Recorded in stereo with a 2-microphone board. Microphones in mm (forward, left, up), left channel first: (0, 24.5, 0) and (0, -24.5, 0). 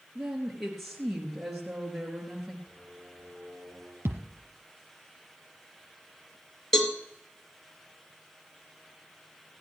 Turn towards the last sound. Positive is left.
turn(degrees=5)  # may be behind; listen again after turning